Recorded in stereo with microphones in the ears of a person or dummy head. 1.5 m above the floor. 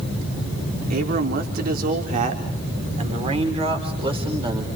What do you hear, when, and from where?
0.9 s a man speaking: 55° right (ahead or behind), 3.5 m; by 4.7 s 25° right (ahead or behind), 4.5 m